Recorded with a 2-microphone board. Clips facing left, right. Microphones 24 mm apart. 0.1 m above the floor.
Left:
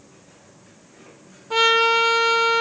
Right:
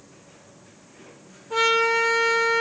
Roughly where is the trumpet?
Left.